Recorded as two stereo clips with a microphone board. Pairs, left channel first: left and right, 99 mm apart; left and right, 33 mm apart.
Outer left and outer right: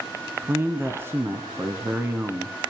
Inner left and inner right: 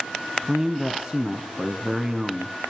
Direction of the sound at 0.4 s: 25° right (ahead or behind).